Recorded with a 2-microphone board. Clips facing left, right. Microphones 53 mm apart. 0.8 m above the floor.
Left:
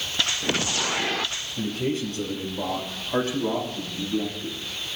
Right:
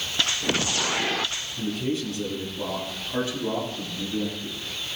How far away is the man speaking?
About 3.5 m.